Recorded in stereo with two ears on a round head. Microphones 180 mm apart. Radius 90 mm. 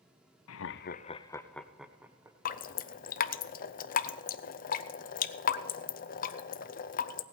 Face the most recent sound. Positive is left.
turn(degrees=40)  # may be behind; listen again after turning